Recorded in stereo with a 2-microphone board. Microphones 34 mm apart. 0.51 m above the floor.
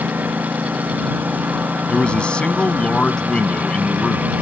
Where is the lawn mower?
70° right (ahead or behind); by 4.4 s 60° right (ahead or behind).